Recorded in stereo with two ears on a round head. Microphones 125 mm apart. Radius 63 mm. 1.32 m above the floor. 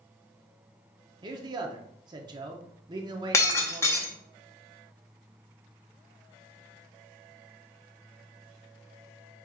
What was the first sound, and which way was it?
A man speaking, 30° right (ahead or behind).